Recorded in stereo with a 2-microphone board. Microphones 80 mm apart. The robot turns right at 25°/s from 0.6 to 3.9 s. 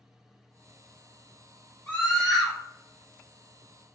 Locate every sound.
1.9 s a scream: 10° left (ahead or behind), 1.9 m; by 2.5 s centre (ahead or behind), 1.9 m